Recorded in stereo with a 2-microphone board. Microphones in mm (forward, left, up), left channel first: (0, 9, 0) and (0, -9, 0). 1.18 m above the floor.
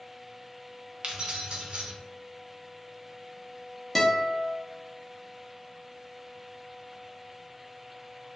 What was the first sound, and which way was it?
Keys jangling, 55° right (ahead or behind).